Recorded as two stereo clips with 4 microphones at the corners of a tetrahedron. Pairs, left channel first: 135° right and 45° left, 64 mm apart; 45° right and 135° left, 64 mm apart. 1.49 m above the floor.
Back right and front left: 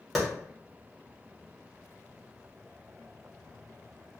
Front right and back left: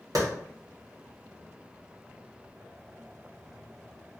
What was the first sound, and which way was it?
A clap, 135° left.